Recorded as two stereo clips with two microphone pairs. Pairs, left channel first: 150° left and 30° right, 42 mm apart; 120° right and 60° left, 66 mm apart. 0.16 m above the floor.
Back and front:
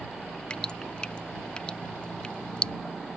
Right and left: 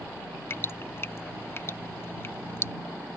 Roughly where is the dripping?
Behind right.